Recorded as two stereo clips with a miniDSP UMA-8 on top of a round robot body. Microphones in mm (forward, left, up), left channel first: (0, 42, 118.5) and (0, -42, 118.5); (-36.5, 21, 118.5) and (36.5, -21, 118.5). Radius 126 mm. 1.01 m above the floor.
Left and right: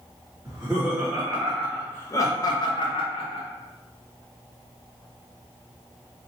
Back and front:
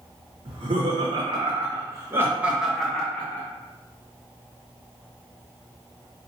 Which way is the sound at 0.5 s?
15° right.